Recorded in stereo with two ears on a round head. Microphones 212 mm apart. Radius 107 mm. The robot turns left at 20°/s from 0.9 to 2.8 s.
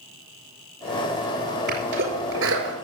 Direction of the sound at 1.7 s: 40° right (ahead or behind).